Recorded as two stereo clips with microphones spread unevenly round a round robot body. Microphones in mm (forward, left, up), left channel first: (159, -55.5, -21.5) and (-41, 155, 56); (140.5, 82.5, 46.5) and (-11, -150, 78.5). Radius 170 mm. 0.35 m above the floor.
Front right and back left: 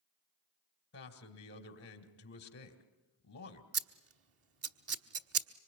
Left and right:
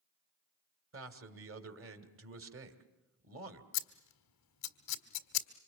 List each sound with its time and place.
0.9 s a man speaking: 85° right, 2.5 m
3.7 s scissors: 90° left, 1.3 m